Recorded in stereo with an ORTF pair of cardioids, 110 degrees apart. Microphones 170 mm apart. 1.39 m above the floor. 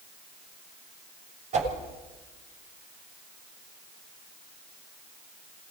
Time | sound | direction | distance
1.5 | a whoosh | 45° right | 7 m